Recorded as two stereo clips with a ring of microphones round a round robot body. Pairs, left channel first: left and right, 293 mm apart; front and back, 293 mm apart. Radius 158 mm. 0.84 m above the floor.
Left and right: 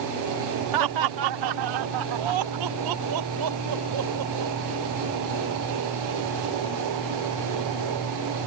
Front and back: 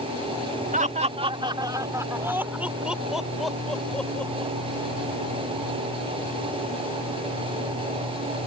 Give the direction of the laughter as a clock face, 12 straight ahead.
4 o'clock.